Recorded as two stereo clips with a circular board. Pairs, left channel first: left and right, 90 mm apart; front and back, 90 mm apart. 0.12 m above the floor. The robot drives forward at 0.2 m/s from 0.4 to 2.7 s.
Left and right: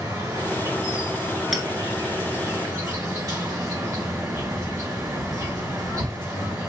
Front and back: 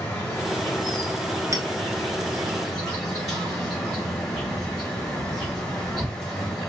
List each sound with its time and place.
0.0 s an insect: 65° right, 2 m; by 6.7 s 80° right, 2 m
1.5 s a clink: 175° right, 0.8 m
4.3 s keys jangling: 135° right, 1.7 m